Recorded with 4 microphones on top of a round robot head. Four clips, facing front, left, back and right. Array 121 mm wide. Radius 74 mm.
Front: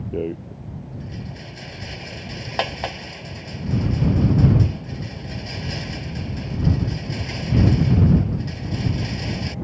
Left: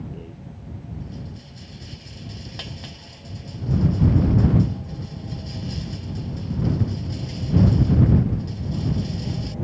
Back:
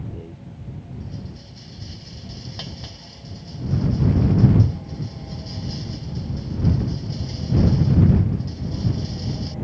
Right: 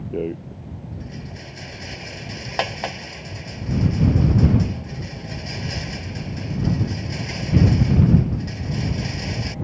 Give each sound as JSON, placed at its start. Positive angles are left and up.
{"t": 0.1, "sound": "a rattle", "azimuth_deg": -45}